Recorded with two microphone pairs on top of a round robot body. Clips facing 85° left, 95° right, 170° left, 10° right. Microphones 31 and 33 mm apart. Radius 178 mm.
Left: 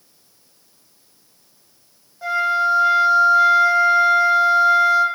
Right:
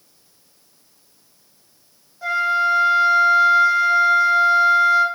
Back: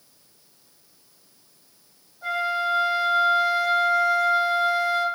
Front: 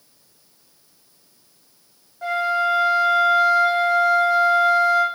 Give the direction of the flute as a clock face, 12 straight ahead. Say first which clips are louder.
Even, front 4 dB; 12 o'clock.